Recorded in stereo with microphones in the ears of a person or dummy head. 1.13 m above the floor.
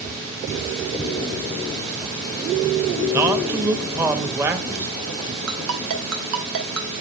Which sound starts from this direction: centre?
A man speaking, at 3.1 s.